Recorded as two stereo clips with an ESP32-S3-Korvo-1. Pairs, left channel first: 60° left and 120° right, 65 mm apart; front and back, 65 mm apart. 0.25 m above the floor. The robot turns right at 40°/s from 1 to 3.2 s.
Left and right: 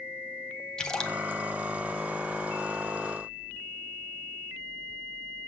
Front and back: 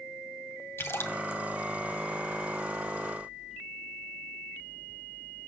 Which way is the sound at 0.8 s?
10° right.